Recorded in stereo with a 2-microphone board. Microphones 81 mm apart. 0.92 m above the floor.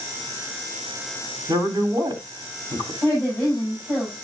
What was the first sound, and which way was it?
A man speaking, 65° right (ahead or behind).